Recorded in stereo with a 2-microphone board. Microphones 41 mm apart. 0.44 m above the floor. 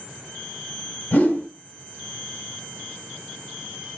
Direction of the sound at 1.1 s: 45° left (ahead or behind).